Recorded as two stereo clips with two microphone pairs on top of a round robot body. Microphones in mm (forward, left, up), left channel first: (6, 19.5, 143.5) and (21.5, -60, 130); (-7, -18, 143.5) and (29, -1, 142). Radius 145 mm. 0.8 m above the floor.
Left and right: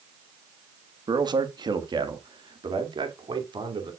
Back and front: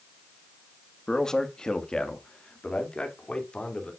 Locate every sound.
1.1 s a man speaking: 80° right, 1.7 m; by 3.9 s 90° right, 3.5 m